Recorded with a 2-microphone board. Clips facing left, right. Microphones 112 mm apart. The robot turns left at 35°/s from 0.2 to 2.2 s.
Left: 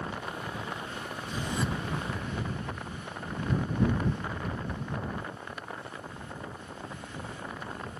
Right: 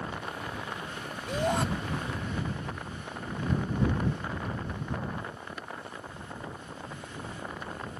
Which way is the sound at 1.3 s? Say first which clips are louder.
Right 6 dB; 70° right (ahead or behind).